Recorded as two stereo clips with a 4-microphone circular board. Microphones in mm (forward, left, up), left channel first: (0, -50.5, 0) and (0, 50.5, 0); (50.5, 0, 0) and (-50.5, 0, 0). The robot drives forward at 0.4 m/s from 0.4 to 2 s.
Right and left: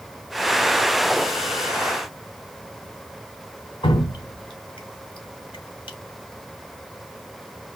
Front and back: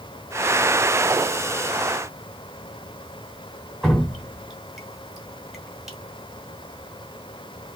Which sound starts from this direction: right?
Dripping, at 3.8 s.